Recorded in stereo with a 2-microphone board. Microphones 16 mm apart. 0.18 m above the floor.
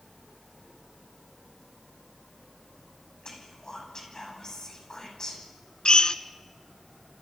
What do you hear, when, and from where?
3.2 s whispering: 45° left (ahead or behind), 10 m
5.8 s a drill: 55° left (ahead or behind), 0.9 m